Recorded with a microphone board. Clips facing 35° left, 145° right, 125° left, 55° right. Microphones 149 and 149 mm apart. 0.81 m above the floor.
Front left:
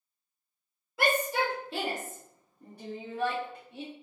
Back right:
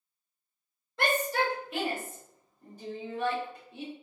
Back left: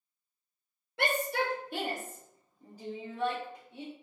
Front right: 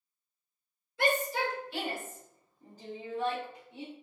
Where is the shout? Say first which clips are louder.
Even, front right 1 dB; 120° left, 1.0 m; by 3.9 s 20° left, 1.3 m.